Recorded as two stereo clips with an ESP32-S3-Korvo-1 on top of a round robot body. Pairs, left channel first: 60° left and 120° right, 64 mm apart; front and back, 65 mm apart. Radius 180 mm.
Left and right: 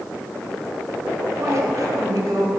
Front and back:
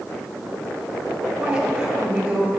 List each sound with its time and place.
1.4 s a woman speaking: 110° right, 1.7 m; by 2.5 s 100° right, 2.5 m